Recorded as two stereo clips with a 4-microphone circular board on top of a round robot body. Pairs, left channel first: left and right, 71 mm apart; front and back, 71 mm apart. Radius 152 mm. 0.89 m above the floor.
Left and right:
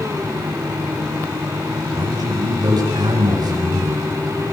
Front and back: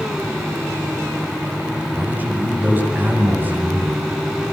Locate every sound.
1.9 s a man speaking: 115° right, 8.5 m